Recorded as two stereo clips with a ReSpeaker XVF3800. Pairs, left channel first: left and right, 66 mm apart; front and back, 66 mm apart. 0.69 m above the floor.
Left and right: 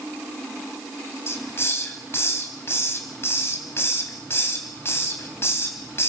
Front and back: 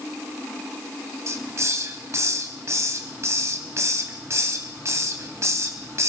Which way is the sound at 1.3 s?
140° left.